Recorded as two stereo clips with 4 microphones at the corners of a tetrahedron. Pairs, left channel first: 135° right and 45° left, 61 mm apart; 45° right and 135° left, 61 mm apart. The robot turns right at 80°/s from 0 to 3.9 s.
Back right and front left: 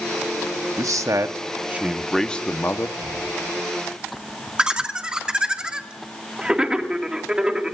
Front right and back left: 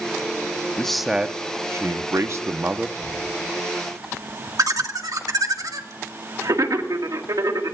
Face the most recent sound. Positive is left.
turn(degrees=120)